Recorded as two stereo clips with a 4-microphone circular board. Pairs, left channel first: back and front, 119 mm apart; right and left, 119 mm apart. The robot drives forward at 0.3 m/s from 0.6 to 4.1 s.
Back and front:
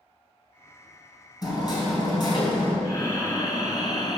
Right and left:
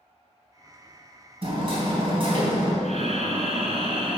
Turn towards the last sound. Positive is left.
turn(degrees=130)